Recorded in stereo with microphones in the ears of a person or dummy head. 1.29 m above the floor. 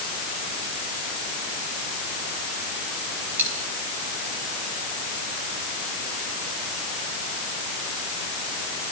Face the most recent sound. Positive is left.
turn(degrees=-5)  # may be behind; listen again after turning